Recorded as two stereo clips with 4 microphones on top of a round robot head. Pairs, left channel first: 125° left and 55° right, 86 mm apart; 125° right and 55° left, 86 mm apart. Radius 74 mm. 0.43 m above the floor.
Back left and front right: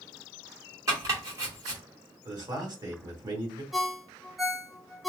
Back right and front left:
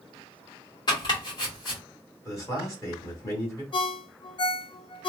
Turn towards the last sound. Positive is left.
turn(degrees=-145)